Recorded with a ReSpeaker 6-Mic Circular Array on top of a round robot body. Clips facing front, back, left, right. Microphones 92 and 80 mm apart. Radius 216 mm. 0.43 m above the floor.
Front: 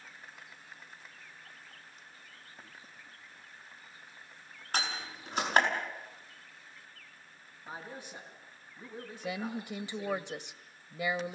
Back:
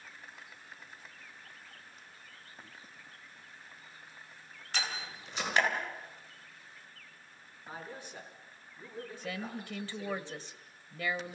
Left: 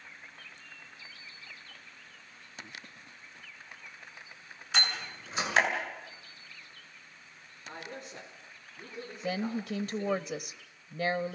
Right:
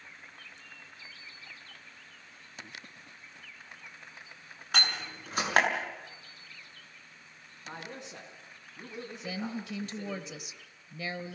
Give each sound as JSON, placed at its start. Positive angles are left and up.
{"t": 4.7, "sound": "a door slam", "azimuth_deg": -50, "distance_m": 6.0}
{"t": 7.7, "sound": "a man speaking", "azimuth_deg": -75, "distance_m": 6.5}
{"t": 9.2, "sound": "a woman speaking", "azimuth_deg": 65, "distance_m": 0.9}